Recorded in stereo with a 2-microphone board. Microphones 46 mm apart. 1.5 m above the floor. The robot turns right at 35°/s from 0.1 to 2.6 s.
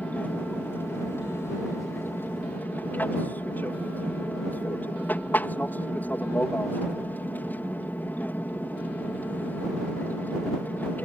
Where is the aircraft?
40° left; by 11.1 s 130° left.